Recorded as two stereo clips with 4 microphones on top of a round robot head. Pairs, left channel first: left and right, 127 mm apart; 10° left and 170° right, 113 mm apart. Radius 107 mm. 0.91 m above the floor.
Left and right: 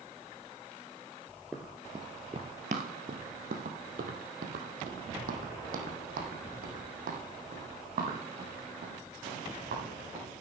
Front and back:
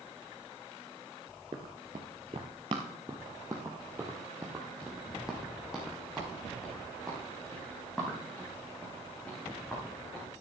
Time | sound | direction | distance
1.5 | running footsteps | straight behind | 1.0 m